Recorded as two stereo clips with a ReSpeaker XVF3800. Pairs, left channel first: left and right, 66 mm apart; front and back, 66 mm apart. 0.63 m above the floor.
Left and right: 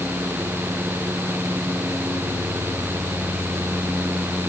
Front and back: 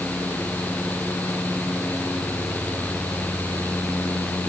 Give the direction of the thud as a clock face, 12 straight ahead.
I don't hear a thud.